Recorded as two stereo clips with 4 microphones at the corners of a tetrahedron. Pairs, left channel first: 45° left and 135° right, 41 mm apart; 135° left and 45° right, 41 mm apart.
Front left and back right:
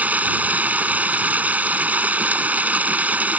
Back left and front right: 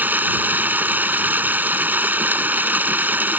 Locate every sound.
0.0 s running water: 85° right